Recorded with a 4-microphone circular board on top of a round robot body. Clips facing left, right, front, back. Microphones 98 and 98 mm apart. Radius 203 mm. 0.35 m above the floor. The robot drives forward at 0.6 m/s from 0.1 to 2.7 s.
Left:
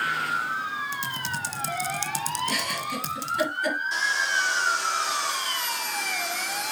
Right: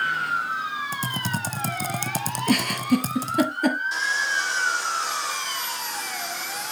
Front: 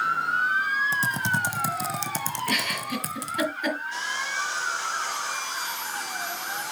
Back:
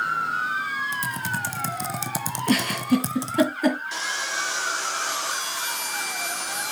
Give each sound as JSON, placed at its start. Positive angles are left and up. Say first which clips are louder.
{"t": 0.9, "sound": "typing on a keyboard", "louder": "right 3 dB, front 2 dB", "azimuth_deg": -50, "distance_m": 1.2}
{"t": 2.5, "sound": "a giggle", "louder": "right 8 dB, back 12 dB", "azimuth_deg": -125, "distance_m": 2.0}
{"t": 3.9, "sound": "sawing", "louder": "even, back 1 dB", "azimuth_deg": 180, "distance_m": 4.0}